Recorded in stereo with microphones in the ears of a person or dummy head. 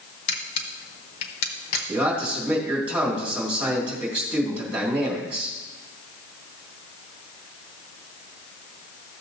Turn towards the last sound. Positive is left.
turn(degrees=-10)  # may be behind; listen again after turning